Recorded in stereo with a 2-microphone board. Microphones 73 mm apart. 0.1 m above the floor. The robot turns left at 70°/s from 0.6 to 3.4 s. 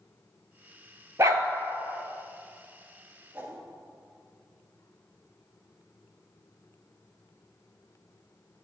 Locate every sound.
1.2 s a dog barking: 40° right (ahead or behind), 0.8 m; by 1.4 s 50° right (ahead or behind), 0.8 m
3.3 s a whoosh: 20° right (ahead or behind), 1.8 m